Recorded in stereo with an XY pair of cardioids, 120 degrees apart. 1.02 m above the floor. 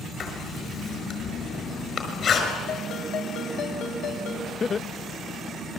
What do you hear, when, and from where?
0.2 s writing: 45° left, 5.5 m
2.7 s a ringtone: 70° left, 4.5 m
4.6 s laughter: 35° left, 0.7 m